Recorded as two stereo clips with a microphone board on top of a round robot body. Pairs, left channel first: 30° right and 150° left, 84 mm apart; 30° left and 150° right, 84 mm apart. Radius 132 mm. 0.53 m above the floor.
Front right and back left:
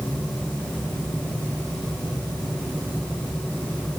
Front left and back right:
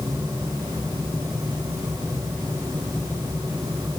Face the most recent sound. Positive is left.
No sound to turn to.